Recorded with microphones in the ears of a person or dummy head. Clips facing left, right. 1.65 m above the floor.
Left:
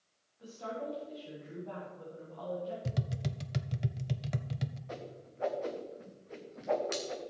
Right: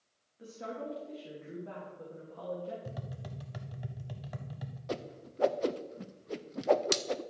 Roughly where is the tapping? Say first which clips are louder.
Left 5 dB; left.